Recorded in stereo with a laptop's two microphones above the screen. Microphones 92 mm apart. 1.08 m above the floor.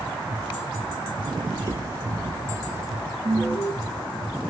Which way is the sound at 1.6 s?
35° right (ahead or behind).